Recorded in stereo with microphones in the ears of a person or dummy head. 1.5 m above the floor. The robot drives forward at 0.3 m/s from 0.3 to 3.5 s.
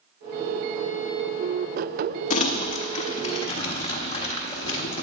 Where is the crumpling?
40° left (ahead or behind), 1.0 m; by 5.0 s 30° left (ahead or behind), 1.3 m.